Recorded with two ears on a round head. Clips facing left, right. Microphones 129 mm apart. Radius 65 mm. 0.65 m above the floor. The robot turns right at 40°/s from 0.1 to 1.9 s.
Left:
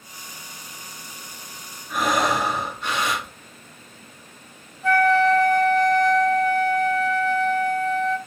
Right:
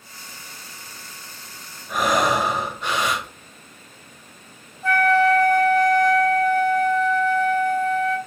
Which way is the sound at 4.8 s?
80° right.